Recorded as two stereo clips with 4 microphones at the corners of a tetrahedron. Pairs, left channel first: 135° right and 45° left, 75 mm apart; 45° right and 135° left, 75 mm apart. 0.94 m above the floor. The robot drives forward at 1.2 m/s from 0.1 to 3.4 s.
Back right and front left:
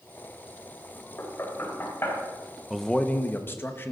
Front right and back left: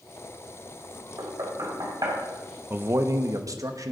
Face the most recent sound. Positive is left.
turn(degrees=165)